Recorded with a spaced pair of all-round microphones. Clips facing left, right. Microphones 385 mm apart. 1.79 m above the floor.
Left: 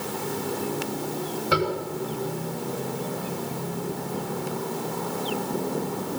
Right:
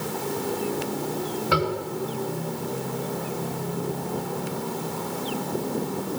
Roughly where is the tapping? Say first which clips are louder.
Left 1 dB; centre.